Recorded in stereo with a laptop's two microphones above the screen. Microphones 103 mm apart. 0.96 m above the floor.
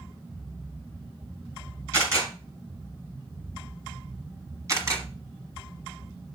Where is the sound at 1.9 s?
30° right (ahead or behind), 4 m.